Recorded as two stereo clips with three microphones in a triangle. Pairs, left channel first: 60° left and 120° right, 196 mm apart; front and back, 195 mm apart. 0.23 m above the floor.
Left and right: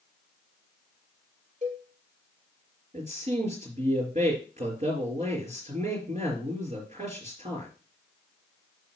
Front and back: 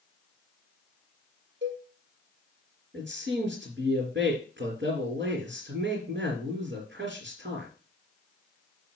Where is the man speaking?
170° right, 3 m.